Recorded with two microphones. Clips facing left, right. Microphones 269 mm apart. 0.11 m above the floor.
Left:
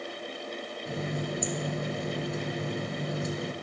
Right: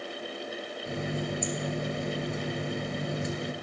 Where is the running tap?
Centre (ahead or behind), 1.3 m.